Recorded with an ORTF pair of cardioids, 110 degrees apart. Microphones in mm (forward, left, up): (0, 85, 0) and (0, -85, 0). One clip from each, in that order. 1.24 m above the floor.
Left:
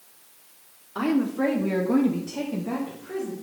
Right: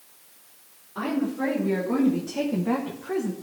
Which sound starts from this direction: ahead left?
A woman speaking, at 0.9 s.